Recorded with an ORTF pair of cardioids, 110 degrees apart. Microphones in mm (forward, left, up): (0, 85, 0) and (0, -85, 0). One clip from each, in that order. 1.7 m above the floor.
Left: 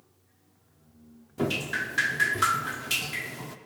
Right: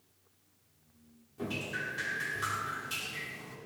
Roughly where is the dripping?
Left.